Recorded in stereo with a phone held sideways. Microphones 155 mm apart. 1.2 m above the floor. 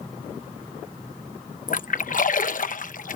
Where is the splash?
60° left (ahead or behind).